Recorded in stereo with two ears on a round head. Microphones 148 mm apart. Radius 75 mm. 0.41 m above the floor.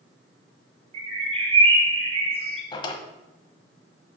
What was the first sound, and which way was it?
A bird, 35° right (ahead or behind).